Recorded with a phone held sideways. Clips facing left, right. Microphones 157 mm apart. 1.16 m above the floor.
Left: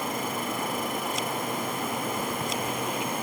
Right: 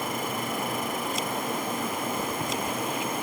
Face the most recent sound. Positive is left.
No sound to turn to.